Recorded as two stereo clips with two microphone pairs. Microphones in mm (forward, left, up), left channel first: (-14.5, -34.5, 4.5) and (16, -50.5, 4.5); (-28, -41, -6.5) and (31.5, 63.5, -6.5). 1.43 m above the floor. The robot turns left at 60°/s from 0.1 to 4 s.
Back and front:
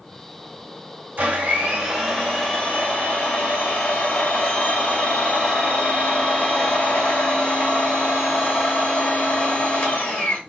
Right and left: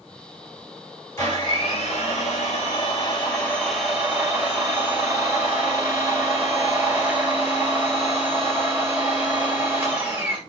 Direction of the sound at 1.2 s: 55° right.